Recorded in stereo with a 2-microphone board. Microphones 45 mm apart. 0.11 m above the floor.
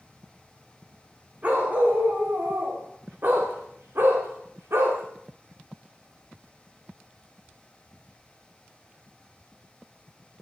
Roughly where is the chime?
No chime in this recording.